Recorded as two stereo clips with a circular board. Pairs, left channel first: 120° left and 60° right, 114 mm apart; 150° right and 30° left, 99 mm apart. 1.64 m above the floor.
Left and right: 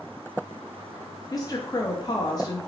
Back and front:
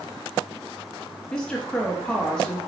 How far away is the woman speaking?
About 0.6 m.